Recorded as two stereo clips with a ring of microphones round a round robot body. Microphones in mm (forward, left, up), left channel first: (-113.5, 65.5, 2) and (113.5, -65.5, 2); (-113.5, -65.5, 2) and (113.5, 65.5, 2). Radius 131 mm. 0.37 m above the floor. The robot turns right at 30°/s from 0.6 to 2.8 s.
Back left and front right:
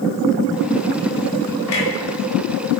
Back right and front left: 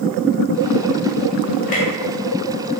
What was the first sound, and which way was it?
A clunk, 155° left.